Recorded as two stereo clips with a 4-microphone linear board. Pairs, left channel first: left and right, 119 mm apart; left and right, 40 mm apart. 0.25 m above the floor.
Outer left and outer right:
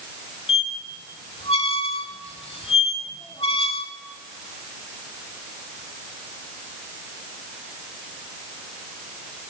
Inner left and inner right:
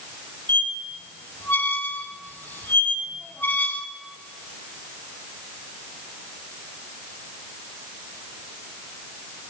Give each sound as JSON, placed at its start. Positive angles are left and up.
{"t": 0.5, "sound": "a squeak", "side_deg": 55, "distance_m": 0.9}